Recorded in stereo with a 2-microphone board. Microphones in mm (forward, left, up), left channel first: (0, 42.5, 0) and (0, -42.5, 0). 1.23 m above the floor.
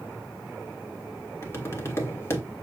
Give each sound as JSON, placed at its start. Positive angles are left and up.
{"t": 1.4, "sound": "tapping", "side_deg": 30, "distance_m": 1.6}